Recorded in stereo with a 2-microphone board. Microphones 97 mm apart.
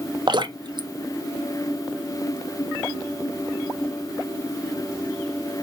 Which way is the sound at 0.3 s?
50° right (ahead or behind).